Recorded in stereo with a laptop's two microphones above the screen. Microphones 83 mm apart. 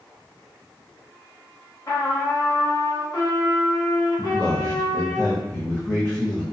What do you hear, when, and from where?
1.9 s a trumpet: 45° left (ahead or behind), 1.0 m
4.2 s a man speaking: 20° left (ahead or behind), 0.6 m